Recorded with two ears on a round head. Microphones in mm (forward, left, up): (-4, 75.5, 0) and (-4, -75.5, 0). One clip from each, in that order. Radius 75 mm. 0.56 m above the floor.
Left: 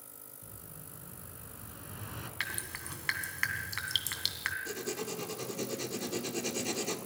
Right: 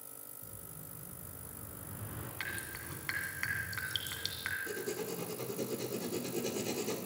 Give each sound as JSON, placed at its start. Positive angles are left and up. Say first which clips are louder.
{"t": 0.4, "sound": "an explosion", "louder": "left 2 dB", "side_deg": 70, "distance_m": 2.0}
{"t": 2.4, "sound": "dripping", "louder": "left 3 dB", "side_deg": 35, "distance_m": 1.9}
{"t": 4.7, "sound": "writing", "louder": "left 1 dB", "side_deg": 35, "distance_m": 1.5}